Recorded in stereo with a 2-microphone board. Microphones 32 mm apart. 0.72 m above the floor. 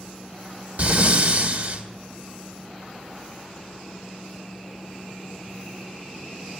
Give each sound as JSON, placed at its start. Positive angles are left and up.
{"t": 0.8, "sound": "breathing", "side_deg": -55, "distance_m": 1.9}